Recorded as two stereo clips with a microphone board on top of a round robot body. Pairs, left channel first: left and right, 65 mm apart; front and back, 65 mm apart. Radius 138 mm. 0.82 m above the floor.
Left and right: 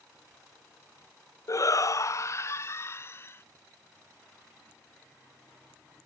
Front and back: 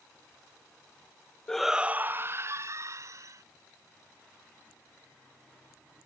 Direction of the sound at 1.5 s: 75° left.